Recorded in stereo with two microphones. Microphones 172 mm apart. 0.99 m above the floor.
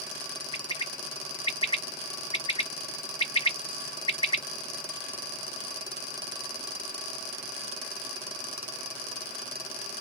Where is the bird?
30° left (ahead or behind), 0.5 m.